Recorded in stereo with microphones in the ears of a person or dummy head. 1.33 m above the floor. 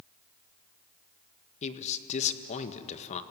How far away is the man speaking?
About 1.6 m.